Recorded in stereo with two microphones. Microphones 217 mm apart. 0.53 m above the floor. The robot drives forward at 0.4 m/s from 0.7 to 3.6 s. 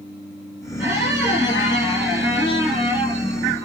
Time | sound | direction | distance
0.8 | a squeak | 10° right (ahead or behind) | 7.5 m